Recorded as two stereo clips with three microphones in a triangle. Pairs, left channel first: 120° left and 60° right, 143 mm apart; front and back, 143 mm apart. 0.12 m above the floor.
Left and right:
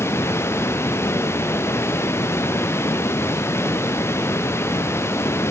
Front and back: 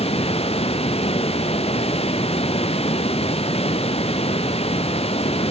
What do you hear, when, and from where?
0.0 s running water: 50° left, 1.1 m